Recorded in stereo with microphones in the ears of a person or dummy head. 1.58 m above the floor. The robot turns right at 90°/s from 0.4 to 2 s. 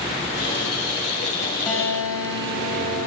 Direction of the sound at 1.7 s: 10° left.